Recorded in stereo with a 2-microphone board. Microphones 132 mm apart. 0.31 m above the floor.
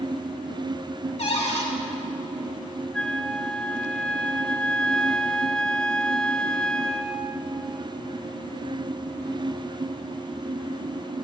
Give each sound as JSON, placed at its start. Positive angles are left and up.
{"t": 1.2, "sound": "a cupboard door", "side_deg": 65, "distance_m": 3.0}
{"t": 2.9, "sound": "a flute", "side_deg": 5, "distance_m": 0.6}